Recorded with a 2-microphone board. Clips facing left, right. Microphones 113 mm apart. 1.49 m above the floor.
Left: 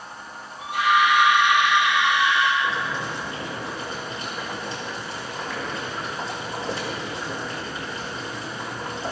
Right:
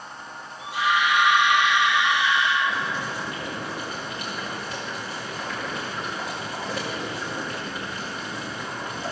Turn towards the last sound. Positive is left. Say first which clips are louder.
# left 1 dB
turn(degrees=30)  # may be behind; listen again after turning